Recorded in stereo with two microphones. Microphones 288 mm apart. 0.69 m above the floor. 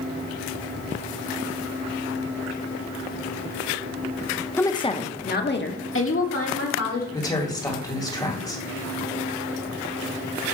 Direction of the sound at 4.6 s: 5° left (ahead or behind).